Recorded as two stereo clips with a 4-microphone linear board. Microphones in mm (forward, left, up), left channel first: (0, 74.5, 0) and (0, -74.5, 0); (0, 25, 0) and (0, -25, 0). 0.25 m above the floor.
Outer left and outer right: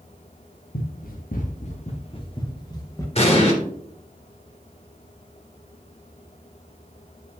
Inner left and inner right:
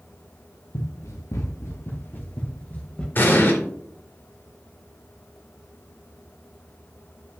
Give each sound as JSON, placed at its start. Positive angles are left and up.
{"t": 0.7, "sound": "running footsteps", "side_deg": 85, "distance_m": 1.6}
{"t": 3.1, "sound": "an explosion", "side_deg": 45, "distance_m": 2.5}